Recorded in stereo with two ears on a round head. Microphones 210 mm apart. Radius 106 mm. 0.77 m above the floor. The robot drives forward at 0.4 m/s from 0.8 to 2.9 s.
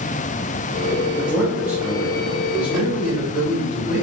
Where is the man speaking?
5° right (ahead or behind), 1.1 m.